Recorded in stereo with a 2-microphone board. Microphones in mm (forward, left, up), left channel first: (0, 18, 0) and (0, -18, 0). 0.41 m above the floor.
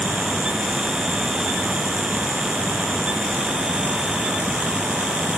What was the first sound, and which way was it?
Only background noise.